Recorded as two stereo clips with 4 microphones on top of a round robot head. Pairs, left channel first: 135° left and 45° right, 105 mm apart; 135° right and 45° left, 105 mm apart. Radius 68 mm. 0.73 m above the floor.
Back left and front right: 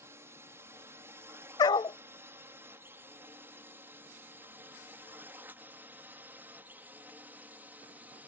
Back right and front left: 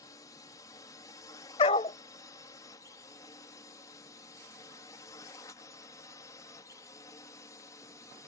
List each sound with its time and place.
0.0 s a drone: 95° right; by 8.3 s 105° right
1.6 s a dog barking: 175° right